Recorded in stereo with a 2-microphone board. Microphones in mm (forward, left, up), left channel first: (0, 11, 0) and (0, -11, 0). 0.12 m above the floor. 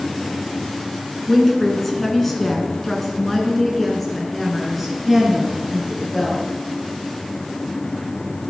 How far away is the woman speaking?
About 1.6 m.